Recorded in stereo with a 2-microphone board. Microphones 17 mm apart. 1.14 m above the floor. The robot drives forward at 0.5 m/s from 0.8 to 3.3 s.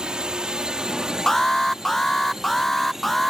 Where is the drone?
50° right (ahead or behind); by 3.3 s 20° right (ahead or behind).